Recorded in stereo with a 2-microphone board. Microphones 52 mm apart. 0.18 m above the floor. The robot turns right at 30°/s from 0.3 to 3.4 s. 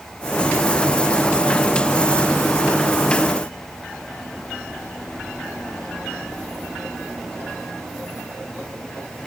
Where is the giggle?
No giggle in this recording.